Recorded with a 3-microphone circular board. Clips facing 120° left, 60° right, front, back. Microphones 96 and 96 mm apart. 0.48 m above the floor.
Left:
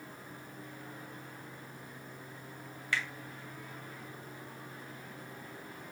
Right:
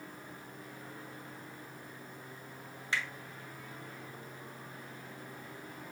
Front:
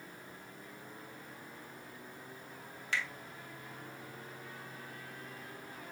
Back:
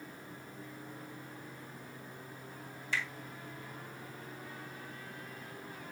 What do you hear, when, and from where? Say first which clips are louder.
2.9 s a finger snap: left 1 dB, even; 5° left, 2 m